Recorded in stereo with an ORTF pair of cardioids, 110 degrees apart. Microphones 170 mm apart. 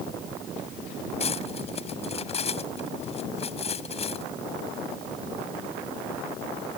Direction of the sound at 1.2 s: 35° left.